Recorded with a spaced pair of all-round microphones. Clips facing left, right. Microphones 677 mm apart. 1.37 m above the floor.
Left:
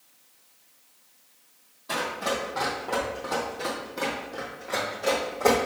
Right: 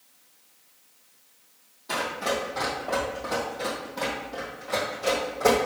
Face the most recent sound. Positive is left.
turn(degrees=-40)  # may be behind; listen again after turning